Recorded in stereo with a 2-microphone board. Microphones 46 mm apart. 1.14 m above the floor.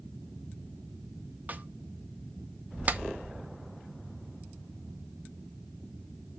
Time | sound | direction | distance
1.5 | a snare drum | 40° right (ahead or behind) | 0.7 m
2.9 | a clap | 35° right (ahead or behind) | 0.7 m